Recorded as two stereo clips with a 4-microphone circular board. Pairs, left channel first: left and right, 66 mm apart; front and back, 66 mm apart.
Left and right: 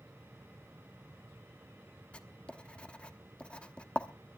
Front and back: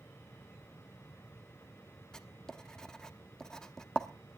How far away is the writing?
About 1.0 m.